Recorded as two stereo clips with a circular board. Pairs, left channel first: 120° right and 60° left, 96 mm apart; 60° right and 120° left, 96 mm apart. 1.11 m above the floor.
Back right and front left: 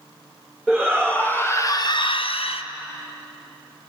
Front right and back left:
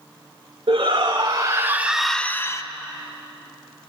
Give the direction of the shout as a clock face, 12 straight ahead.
7 o'clock.